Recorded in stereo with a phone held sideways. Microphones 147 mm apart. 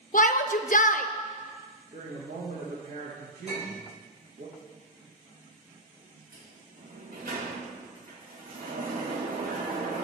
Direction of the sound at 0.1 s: 65° left (ahead or behind).